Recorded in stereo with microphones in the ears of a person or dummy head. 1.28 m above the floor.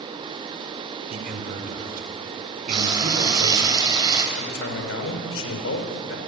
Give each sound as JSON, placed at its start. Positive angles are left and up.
{"t": 1.1, "sound": "a man speaking", "side_deg": -50, "distance_m": 4.0}
{"t": 2.7, "sound": "frying", "side_deg": -20, "distance_m": 3.5}
{"t": 4.4, "sound": "a man speaking", "side_deg": 90, "distance_m": 4.5}